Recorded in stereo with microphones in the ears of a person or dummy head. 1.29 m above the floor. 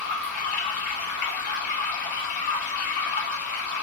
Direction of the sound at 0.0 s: 40° left (ahead or behind).